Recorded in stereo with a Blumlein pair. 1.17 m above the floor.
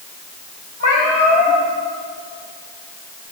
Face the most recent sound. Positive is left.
turn(degrees=65)